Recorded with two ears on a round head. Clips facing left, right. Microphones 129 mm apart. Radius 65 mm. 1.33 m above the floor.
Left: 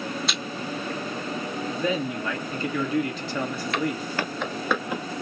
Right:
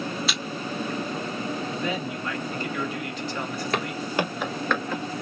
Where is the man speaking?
65° left (ahead or behind), 1.7 m.